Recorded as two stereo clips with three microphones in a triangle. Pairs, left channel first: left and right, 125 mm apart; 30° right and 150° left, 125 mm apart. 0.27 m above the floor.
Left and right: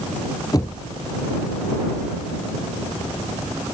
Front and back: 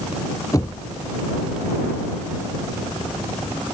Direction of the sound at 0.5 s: 30° left.